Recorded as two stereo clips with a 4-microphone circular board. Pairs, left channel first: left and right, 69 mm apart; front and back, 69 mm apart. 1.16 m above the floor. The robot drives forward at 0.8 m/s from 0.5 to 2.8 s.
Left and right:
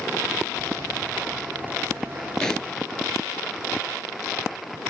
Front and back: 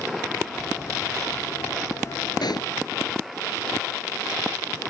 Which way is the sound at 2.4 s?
10° left.